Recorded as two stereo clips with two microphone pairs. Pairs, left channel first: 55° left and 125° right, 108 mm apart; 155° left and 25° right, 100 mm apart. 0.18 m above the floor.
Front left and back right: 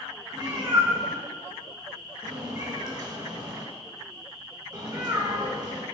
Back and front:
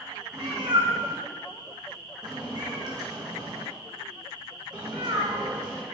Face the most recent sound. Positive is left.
turn(degrees=-70)